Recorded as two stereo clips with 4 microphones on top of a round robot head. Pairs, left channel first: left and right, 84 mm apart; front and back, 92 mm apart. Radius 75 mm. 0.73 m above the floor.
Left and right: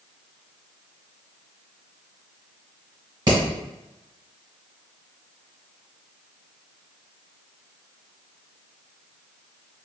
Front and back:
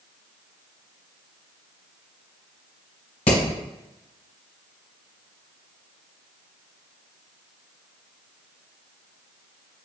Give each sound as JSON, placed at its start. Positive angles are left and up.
{"t": 3.3, "sound": "hammering", "azimuth_deg": -35, "distance_m": 1.8}